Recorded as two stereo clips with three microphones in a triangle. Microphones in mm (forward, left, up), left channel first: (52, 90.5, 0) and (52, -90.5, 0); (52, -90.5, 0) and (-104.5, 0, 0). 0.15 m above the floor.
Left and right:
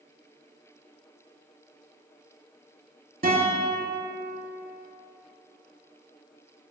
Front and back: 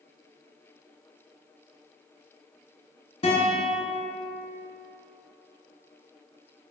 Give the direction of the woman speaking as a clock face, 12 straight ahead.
No woman speaking in this recording.